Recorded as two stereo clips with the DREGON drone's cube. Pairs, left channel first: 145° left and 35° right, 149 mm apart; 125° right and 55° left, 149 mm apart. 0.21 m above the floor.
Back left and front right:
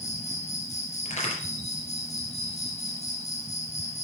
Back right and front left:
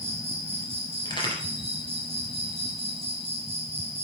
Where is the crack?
Straight behind, 3 m.